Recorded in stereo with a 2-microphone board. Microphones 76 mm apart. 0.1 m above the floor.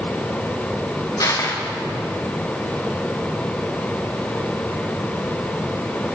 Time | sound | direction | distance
1.2 | crushing | 50° left (ahead or behind) | 4 m